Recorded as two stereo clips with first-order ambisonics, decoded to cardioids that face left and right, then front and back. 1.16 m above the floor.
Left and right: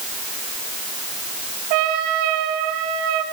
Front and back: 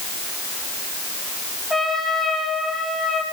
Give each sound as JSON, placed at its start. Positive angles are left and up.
{"t": 1.7, "sound": "a trumpet", "azimuth_deg": -90, "distance_m": 8.5}